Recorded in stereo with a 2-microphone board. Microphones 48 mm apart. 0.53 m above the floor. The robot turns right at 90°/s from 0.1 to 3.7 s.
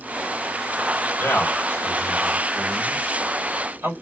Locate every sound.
1.2 s a man speaking: 55° left (ahead or behind), 2.0 m; by 3.9 s 55° right (ahead or behind), 2.0 m